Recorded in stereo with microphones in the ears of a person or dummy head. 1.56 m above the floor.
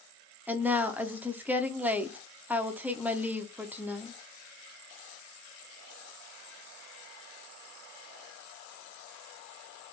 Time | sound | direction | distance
0.5 | a woman speaking | 10° right (ahead or behind) | 0.6 m